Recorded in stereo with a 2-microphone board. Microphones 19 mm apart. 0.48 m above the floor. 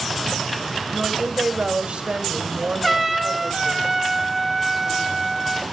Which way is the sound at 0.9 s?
70° right (ahead or behind).